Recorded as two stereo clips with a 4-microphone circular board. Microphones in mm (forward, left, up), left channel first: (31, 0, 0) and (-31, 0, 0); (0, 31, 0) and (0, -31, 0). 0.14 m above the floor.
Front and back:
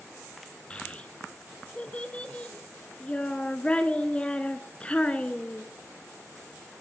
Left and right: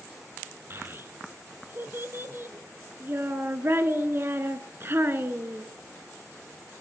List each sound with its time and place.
0.7 s a child speaking: 60° right, 0.9 m